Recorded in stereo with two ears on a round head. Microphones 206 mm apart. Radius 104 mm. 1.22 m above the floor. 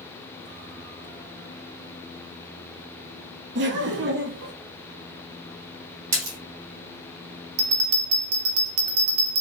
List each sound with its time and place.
3.5 s laughter: 55° right (ahead or behind), 0.9 m
6.1 s a splash: 65° right (ahead or behind), 2 m
7.6 s a bell: 70° right (ahead or behind), 0.8 m